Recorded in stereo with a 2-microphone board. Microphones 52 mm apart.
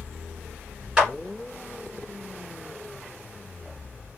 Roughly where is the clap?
Centre.